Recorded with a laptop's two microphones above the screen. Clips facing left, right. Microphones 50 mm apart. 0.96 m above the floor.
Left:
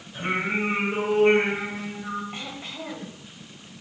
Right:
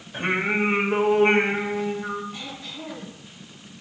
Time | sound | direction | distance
0.1 | singing | 50° right (ahead or behind) | 1.5 m
2.3 | throat clearing | 40° left (ahead or behind) | 3 m